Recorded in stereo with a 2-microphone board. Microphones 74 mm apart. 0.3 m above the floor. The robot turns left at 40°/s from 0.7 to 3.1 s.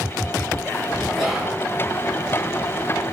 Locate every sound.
1.1 s whispering: centre (ahead or behind), 1.3 m; by 1.6 s 10° right (ahead or behind), 1.3 m